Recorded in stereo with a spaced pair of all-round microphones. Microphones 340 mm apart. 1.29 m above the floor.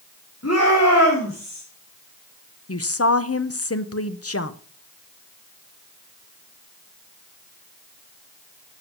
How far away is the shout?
About 3.5 m.